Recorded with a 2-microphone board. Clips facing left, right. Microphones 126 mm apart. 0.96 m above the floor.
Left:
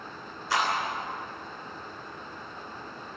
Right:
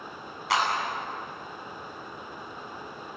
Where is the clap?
80° right, 9 m.